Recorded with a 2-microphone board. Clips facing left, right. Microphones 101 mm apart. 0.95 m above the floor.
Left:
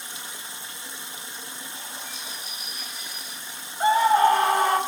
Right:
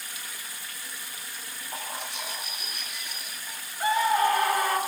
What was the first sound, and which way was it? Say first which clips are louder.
Running water: left 2 dB; 25° left (ahead or behind).